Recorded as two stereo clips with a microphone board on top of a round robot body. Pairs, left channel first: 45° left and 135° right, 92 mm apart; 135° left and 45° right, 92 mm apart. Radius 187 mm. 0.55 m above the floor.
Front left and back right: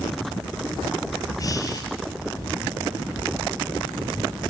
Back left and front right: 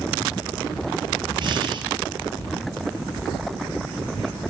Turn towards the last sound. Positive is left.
turn(degrees=-5)